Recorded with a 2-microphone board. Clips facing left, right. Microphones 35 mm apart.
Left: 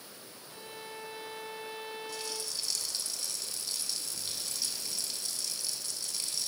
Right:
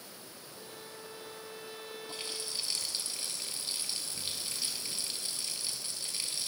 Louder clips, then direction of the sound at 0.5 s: Left 5 dB; 45° left (ahead or behind).